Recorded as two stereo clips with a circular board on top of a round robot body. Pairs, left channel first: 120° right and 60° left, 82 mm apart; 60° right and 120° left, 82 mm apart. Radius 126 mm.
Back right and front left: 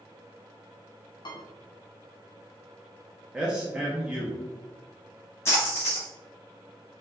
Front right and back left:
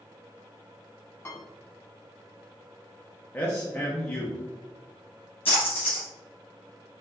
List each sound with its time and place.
1.2 s a piano: 115° right, 0.8 m
3.3 s a man speaking: 10° right, 0.8 m
5.5 s a splash: 60° right, 0.9 m